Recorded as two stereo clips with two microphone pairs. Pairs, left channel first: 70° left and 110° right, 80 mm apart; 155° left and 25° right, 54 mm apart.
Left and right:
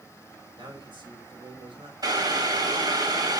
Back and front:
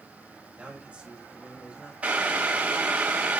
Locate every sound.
0.6 s a man speaking: 95° right, 3.5 m
2.0 s boiling: 85° right, 2 m